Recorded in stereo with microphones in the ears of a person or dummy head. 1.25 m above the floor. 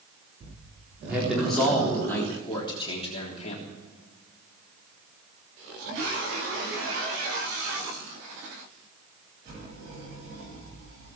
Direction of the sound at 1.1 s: 10° right (ahead or behind).